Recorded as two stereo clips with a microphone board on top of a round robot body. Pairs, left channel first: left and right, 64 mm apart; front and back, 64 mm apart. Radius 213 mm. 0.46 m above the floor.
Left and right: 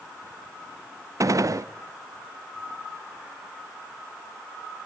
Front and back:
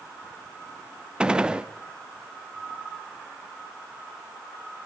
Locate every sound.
1.2 s a gunshot: 105° right, 0.7 m